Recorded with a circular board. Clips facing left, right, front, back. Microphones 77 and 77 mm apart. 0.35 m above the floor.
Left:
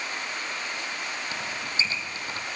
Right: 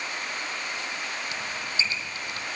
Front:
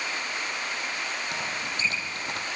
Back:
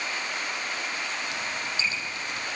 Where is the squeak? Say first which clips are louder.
Even, even; 35° left, 4.5 m.